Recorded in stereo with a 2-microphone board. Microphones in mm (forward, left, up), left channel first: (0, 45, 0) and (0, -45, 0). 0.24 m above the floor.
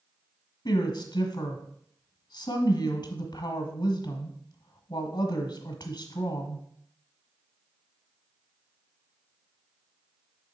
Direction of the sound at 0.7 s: 50° left (ahead or behind).